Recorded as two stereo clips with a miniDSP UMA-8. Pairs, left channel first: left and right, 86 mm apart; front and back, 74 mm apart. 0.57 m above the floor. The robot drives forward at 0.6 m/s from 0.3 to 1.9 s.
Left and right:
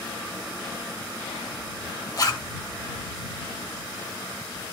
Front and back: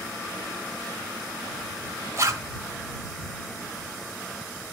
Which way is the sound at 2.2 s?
130° left.